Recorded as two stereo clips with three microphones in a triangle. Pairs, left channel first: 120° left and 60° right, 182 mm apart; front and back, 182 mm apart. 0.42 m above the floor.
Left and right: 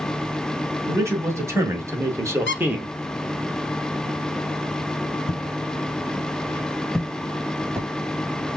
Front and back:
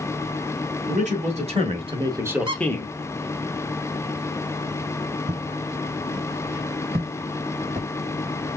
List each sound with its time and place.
0.9 s a man speaking: 135° right, 2.5 m; by 2.9 s 20° left, 0.9 m
2.5 s a squeak: 115° left, 0.8 m
5.3 s footsteps: 165° left, 1.5 m; by 7.9 s 135° right, 1.7 m